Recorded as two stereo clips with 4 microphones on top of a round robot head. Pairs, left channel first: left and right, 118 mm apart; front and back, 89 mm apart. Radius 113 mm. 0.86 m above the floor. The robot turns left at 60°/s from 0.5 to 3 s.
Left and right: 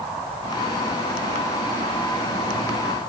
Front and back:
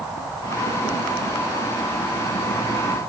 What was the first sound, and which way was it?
Only background noise.